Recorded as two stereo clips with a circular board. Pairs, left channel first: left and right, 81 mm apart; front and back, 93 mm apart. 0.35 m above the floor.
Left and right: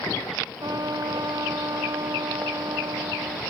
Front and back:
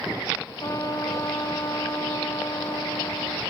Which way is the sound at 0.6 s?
50° right.